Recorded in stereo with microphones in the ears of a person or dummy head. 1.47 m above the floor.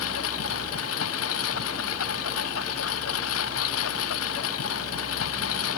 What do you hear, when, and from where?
0.0 s a lawn mower: 80° left